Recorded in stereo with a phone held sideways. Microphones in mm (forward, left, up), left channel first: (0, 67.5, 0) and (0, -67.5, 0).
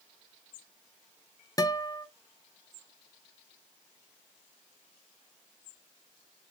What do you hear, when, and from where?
1.6 s a guitar: 25° left (ahead or behind), 0.5 m